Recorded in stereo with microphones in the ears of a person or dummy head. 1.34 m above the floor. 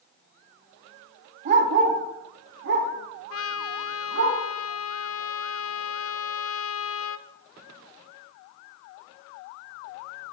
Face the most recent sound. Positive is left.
turn(degrees=75)  # may be behind; listen again after turning